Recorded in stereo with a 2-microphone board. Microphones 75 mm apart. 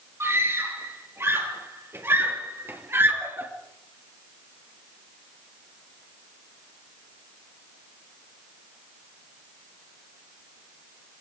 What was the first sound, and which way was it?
A scream, 35° right (ahead or behind).